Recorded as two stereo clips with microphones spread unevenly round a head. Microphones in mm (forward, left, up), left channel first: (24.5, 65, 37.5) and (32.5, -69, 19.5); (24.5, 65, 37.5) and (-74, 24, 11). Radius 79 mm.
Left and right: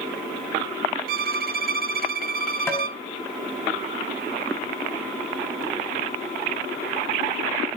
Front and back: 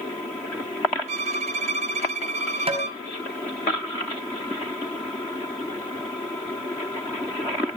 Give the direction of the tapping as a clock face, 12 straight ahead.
6 o'clock.